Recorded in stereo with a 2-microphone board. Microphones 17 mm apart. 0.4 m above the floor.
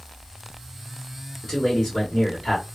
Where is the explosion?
No explosion in this recording.